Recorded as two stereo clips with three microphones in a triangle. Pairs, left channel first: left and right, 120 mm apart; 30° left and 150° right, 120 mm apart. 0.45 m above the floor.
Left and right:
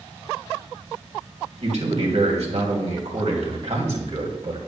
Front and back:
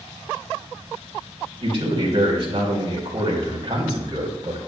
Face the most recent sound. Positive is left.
turn(degrees=-105)